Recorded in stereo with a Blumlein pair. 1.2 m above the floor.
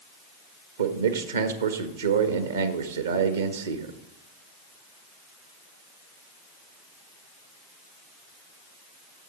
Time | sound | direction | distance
0.8 | a man speaking | 65° right | 1.3 m